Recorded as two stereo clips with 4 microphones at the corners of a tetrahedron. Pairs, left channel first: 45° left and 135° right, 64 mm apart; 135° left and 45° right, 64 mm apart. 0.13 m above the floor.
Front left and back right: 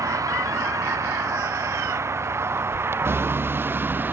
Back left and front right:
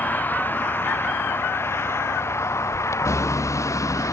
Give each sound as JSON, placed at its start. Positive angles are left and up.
{"t": 0.0, "sound": "a vehicle", "azimuth_deg": -165}